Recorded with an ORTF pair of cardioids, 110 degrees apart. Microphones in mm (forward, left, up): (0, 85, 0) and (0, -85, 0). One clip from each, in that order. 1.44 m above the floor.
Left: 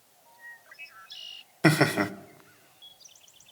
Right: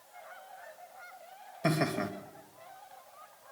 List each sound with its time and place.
1.6 s laughter: 60° left, 1.7 m